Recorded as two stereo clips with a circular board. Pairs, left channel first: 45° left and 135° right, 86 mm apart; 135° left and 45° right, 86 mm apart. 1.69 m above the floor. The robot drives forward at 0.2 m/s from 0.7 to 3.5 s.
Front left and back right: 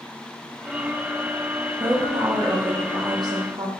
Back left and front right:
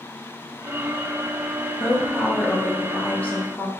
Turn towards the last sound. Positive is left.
turn(degrees=-160)